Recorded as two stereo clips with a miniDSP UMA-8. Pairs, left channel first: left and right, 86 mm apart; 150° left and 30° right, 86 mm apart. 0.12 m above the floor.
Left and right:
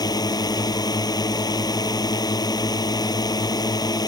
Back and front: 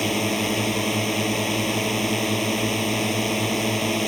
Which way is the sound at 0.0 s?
60° left.